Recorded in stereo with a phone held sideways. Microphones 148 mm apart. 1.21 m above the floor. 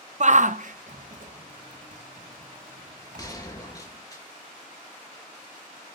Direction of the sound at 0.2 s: 55° right (ahead or behind).